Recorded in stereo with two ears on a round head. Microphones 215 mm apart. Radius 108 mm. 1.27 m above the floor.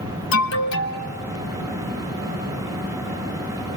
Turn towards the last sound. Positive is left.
turn(degrees=55)  # may be behind; listen again after turning